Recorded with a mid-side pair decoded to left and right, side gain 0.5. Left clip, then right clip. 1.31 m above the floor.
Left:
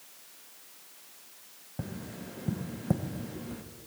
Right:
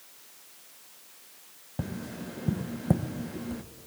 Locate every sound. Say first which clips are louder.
1.8 s tapping: right 4 dB; 25° right, 0.9 m